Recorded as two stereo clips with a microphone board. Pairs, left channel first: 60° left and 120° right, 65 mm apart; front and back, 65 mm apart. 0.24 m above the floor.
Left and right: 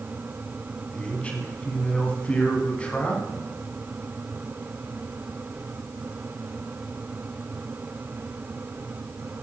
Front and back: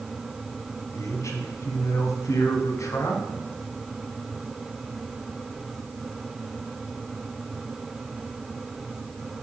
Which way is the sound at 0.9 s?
5° right.